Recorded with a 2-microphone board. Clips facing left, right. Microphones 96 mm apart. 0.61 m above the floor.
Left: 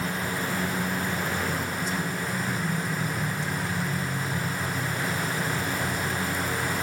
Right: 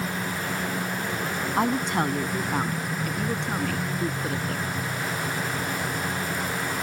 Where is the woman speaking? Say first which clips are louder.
Right 6 dB; 70° right (ahead or behind); by 4.7 s 65° right (ahead or behind).